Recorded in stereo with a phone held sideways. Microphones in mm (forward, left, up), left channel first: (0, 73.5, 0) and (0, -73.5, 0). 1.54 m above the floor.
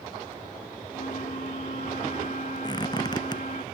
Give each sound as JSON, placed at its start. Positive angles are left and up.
{"t": 0.9, "sound": "a flute", "side_deg": 60}
{"t": 2.6, "sound": "a squeak", "side_deg": 25}